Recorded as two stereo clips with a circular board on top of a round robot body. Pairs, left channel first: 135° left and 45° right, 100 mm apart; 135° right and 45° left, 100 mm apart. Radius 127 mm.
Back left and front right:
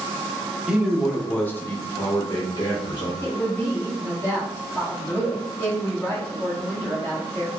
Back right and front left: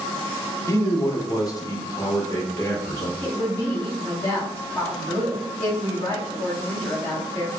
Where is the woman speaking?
175° left, 1.5 m.